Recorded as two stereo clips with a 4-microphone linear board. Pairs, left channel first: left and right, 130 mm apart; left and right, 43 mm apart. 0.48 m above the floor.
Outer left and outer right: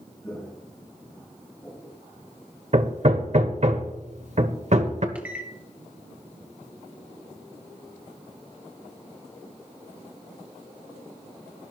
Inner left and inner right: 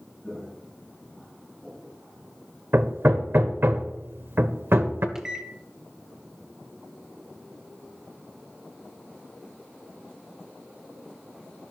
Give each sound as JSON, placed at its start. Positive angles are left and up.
{"t": 0.2, "sound": "footsteps", "side_deg": 10, "distance_m": 8.5}
{"t": 2.7, "sound": "hammering", "side_deg": -60, "distance_m": 1.3}
{"t": 5.2, "sound": "a microwave", "side_deg": -10, "distance_m": 1.5}